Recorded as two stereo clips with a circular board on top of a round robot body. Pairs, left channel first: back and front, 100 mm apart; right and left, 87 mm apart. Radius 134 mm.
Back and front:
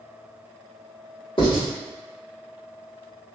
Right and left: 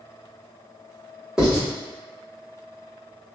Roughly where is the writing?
Behind.